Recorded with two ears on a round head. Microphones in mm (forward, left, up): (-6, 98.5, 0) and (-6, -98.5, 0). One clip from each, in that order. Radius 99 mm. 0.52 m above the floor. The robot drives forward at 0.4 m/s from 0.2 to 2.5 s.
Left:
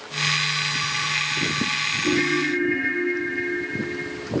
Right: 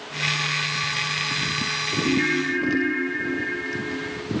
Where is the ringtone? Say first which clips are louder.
Even; 80° left, 7.5 m.